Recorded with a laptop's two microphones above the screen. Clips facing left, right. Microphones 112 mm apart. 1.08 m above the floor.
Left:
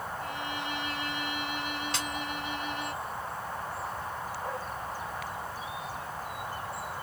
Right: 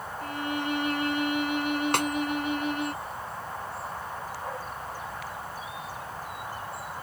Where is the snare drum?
60° right (ahead or behind).